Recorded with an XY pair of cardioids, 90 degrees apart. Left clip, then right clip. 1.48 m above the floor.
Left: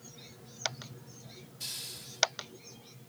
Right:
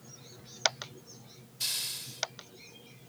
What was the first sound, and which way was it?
A hiss, 70° right.